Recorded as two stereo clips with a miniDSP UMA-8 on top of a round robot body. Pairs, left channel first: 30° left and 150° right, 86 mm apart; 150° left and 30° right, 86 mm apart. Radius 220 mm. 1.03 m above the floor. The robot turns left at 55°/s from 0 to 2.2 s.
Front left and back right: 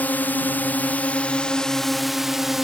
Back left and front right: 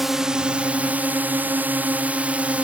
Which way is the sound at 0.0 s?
50° left.